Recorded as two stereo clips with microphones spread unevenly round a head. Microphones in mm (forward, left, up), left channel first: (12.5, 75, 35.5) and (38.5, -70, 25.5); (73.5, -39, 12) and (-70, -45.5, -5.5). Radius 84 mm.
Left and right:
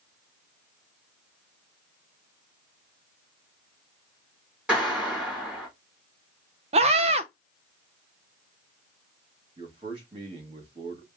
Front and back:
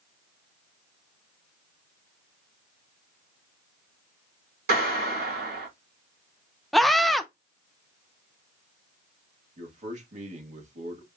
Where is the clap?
165° right, 2 m.